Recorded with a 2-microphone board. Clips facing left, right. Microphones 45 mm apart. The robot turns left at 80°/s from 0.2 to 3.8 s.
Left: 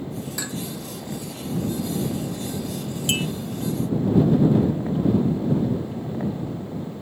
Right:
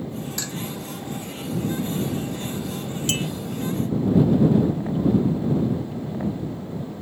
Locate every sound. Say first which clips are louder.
0.4 s dishes clattering: left 1 dB; 10° left (ahead or behind); by 0.6 s 25° left (ahead or behind)
3.1 s a clink: left 2 dB; 20° left (ahead or behind); by 3.3 s 30° left (ahead or behind)